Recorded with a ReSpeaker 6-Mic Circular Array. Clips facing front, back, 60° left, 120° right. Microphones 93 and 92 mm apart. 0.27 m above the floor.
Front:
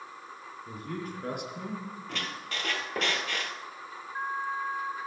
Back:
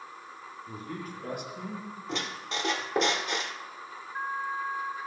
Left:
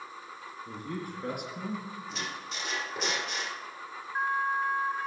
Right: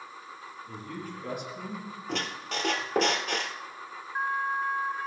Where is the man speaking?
35° left, 4 m; by 1.9 s 25° left, 3 m.